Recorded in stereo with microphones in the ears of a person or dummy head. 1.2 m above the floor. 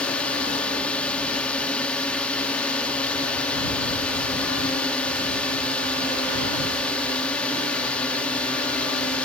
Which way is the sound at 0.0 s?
5° left (ahead or behind).